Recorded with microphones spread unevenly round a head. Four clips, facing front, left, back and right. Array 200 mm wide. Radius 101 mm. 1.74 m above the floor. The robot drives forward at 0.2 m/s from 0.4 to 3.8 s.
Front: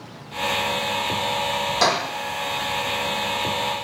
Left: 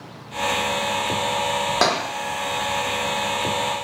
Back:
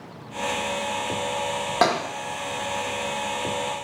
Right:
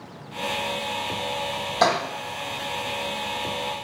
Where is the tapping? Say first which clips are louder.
Right 2 dB, back 1 dB; 140° left, 0.8 m.